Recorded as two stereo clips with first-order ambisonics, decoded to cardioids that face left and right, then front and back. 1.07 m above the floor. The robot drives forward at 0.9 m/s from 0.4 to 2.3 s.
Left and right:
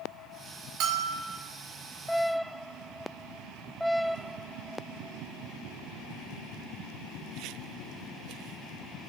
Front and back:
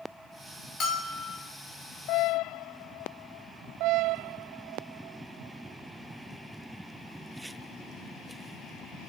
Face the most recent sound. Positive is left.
turn(degrees=-80)